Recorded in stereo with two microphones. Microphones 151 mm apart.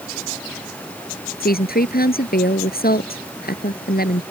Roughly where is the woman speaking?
Left.